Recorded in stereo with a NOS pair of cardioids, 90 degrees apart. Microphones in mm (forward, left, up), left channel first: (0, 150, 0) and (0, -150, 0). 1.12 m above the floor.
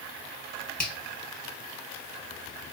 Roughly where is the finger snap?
Ahead left.